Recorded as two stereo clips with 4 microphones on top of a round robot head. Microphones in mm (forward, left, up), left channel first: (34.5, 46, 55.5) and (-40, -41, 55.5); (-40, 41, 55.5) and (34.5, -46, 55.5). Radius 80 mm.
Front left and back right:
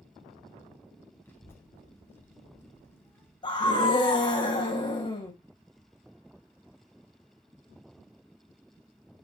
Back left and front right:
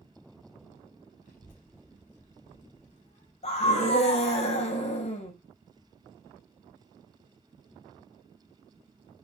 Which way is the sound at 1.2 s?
120° left.